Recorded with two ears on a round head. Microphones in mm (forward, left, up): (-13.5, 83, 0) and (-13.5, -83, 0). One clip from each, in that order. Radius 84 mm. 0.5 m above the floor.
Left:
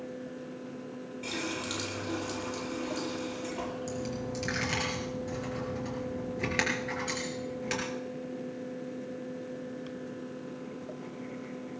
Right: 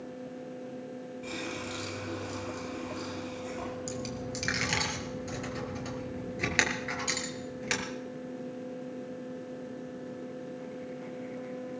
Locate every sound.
1.2 s a running tap: 55° left (ahead or behind), 10 m
3.9 s a dropped coin: 35° right (ahead or behind), 3.5 m